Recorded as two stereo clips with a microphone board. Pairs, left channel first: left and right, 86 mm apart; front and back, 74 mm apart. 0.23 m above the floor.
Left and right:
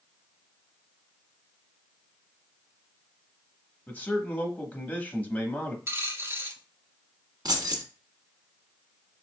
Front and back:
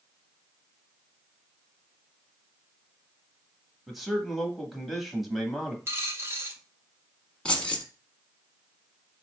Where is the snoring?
I don't hear snoring.